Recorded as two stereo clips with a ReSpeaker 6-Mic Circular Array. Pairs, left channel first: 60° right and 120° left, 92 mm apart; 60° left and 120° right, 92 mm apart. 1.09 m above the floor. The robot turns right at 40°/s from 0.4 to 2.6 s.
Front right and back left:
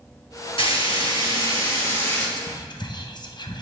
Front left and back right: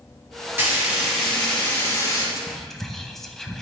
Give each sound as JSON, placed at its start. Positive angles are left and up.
{"t": 0.6, "sound": "frying", "azimuth_deg": -55, "distance_m": 3.0}
{"t": 2.4, "sound": "whispering", "azimuth_deg": -35, "distance_m": 0.8}